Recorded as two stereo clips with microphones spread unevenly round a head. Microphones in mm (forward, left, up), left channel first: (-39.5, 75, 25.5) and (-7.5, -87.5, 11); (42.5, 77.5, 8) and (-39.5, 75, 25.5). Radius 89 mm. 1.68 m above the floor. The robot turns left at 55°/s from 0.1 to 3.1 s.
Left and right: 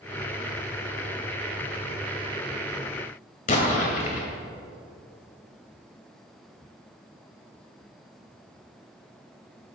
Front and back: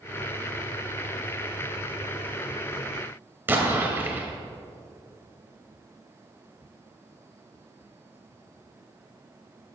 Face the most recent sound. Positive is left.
turn(degrees=130)